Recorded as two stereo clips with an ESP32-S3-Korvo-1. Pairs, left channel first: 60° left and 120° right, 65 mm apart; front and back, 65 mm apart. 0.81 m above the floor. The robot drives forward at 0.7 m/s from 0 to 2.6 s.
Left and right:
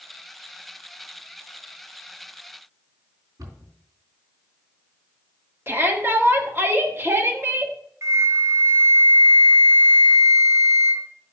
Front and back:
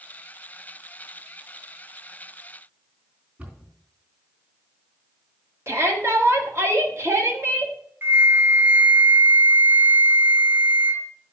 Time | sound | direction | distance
3.4 | a cupboard door | 120° right | 3.5 m
5.7 | a shout | 160° right | 1.6 m
8.0 | a flute | 130° right | 0.7 m